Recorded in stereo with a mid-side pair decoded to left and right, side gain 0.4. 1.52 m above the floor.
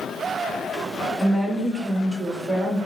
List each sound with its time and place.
1.2 s a woman speaking: 10° right, 1.3 m; by 2.8 s 50° right, 1.6 m